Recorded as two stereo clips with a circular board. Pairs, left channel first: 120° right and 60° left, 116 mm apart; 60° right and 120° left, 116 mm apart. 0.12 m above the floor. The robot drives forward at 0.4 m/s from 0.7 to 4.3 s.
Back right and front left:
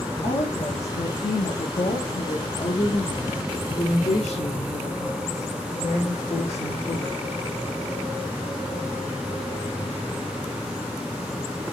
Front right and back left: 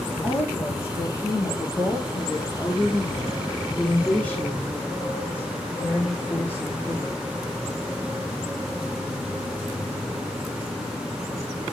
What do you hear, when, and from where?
0.2 s a woman speaking: 115° right, 5.5 m; by 7.4 s 130° right, 6 m